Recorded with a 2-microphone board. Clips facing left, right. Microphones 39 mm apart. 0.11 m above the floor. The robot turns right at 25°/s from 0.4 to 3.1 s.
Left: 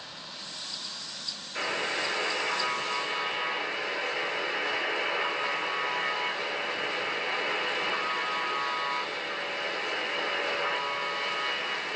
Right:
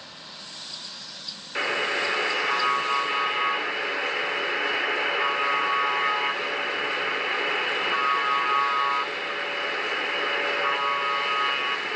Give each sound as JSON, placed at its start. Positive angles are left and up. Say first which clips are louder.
{"t": 1.6, "sound": "a buzzer", "louder": "right 5 dB", "azimuth_deg": -100, "distance_m": 0.7}